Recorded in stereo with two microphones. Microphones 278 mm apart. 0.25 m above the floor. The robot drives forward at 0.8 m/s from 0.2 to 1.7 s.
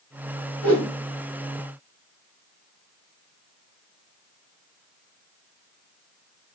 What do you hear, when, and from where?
0.6 s a whoosh: 60° right (ahead or behind), 1.3 m; by 0.9 s 50° right (ahead or behind), 1.4 m